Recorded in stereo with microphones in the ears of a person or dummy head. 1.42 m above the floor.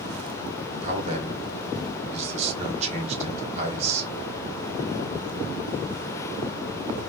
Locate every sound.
0.8 s a man speaking: 45° right (ahead or behind), 1.7 m